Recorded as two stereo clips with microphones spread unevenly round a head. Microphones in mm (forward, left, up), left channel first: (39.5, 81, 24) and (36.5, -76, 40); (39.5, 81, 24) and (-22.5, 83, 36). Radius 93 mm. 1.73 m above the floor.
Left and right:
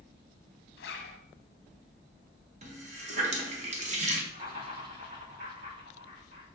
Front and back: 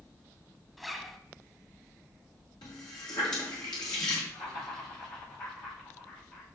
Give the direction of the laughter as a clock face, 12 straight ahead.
2 o'clock.